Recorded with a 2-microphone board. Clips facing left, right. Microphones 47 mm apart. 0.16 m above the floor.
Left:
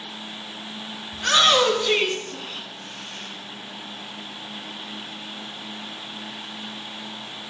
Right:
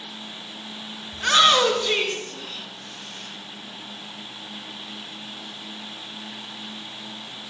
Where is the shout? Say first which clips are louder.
Right 1 dB; 15° right (ahead or behind), 1.5 m; by 3.3 s 40° left (ahead or behind), 2 m.